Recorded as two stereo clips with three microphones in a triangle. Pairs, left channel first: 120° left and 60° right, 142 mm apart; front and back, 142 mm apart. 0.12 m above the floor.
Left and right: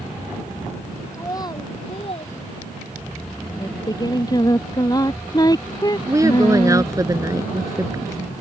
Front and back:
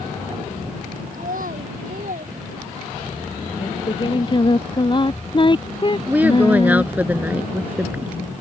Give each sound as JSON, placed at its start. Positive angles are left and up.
{"t": 1.1, "sound": "a child speaking", "azimuth_deg": -175}
{"t": 3.6, "sound": "singing", "azimuth_deg": 55}
{"t": 6.1, "sound": "a woman speaking", "azimuth_deg": -110}